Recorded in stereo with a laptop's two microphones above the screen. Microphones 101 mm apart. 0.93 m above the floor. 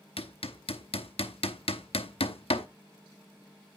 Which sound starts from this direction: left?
Hammering, at 0.2 s.